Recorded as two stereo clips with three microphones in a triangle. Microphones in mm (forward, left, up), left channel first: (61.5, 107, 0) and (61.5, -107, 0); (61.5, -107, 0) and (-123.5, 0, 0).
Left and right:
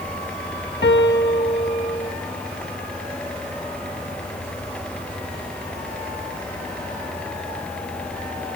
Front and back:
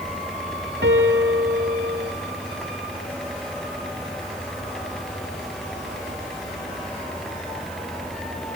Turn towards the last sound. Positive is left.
turn(degrees=120)